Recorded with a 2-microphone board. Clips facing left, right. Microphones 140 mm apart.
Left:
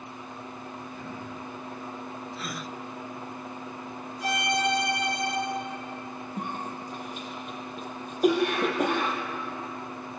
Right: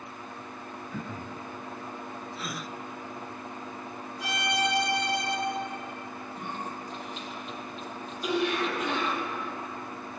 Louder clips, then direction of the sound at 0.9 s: Right 1 dB; 85° right.